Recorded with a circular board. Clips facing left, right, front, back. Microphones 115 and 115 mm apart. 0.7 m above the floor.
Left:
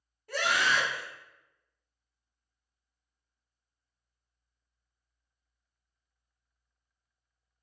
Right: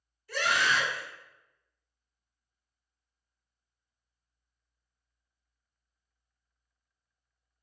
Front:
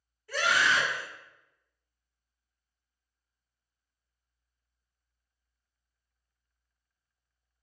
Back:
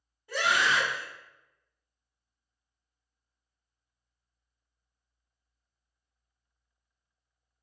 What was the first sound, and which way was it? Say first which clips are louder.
A scream: even, even; 110° left.